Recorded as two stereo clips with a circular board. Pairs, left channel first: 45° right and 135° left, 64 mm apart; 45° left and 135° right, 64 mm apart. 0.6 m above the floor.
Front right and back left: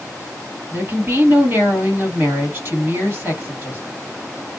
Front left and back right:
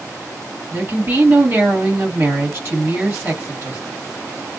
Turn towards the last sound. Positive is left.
turn(degrees=-175)